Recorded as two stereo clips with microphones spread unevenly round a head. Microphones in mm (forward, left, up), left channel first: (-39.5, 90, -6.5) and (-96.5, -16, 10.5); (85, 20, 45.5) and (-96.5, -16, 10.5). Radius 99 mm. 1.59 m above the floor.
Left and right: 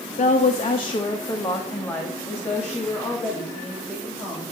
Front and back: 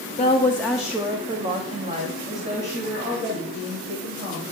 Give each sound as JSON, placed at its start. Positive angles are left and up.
{"t": 0.2, "sound": "a woman speaking", "azimuth_deg": 70, "distance_m": 0.6}